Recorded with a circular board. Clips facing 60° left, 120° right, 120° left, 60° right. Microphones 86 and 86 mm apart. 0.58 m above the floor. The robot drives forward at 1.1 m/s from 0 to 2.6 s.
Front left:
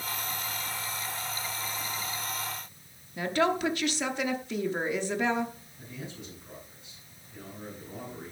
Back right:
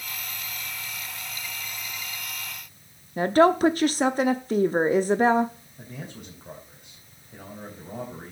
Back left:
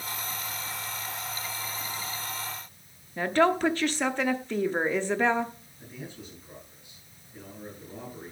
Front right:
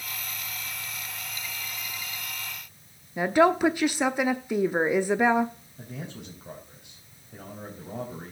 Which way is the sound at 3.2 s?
135° right.